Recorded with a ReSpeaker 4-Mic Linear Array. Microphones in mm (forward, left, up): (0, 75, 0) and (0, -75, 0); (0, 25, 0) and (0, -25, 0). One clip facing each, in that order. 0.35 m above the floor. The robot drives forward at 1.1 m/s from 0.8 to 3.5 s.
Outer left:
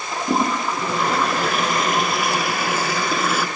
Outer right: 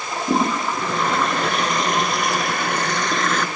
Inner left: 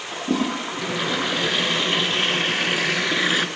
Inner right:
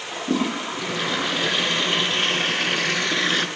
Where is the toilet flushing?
5° left (ahead or behind), 4.5 m; by 3.5 s 10° left (ahead or behind), 1.5 m.